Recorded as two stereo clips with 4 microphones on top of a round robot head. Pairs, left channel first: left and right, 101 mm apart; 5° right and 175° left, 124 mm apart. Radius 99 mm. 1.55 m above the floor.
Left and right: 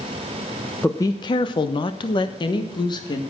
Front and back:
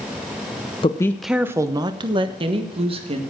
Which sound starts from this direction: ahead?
A woman speaking, at 0.8 s.